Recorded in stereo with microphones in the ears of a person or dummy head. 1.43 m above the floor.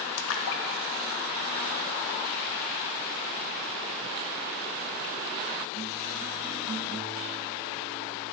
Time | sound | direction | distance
0.2 | a splash | 80° left | 1.2 m